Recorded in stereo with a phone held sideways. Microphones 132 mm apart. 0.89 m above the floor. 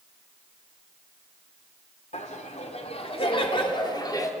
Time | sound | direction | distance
2.1 | laughter | 65° left (ahead or behind) | 3 m